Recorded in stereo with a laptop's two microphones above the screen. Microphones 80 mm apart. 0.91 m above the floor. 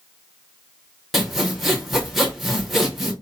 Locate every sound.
1.1 s sawing: centre (ahead or behind), 1.0 m